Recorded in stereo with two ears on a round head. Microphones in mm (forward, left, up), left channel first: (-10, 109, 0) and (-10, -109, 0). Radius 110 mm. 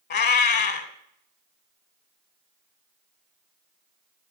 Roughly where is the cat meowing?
Left.